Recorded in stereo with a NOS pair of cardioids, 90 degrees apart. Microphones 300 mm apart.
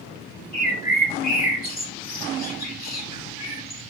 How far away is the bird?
About 2.5 m.